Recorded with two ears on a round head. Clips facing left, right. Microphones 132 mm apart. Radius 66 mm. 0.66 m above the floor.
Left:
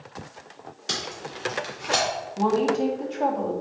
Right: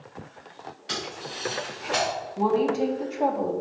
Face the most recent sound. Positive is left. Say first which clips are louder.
# left 1 dB
turn(degrees=-5)  # may be behind; listen again after turning